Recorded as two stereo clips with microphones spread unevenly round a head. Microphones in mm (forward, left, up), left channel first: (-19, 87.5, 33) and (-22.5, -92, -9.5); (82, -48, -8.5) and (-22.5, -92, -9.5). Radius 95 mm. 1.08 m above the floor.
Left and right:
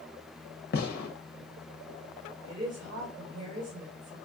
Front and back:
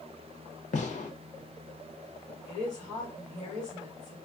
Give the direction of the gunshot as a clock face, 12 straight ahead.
11 o'clock.